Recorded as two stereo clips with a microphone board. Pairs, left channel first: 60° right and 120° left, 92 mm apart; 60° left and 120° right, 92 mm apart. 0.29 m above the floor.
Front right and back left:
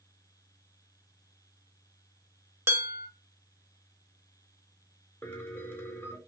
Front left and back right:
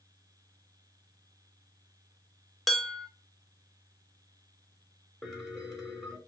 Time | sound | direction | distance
2.7 | dishes clattering | 145° left | 0.6 m
5.2 | a piano | 30° right | 1.1 m